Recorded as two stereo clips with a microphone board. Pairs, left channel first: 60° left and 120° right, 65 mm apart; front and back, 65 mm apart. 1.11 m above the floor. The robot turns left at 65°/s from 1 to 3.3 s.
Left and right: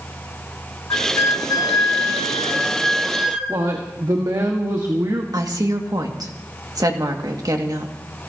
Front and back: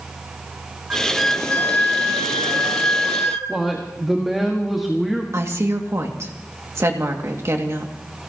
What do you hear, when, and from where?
0.9 s a flute: 105° left, 1.4 m; by 3.6 s 45° right, 1.4 m
3.5 s a woman speaking: 90° right, 1.6 m
5.3 s a woman speaking: 135° right, 2 m